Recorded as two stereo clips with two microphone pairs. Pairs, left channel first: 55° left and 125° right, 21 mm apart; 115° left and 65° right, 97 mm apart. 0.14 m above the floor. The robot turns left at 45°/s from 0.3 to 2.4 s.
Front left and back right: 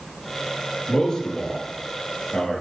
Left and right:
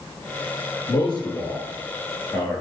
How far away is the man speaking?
About 2 m.